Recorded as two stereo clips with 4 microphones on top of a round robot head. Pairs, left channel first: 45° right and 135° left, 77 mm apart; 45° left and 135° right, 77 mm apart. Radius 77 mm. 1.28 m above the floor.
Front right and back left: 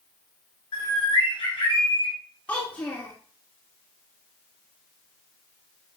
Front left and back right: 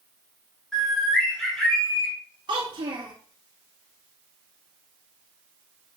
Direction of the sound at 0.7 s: 40° right.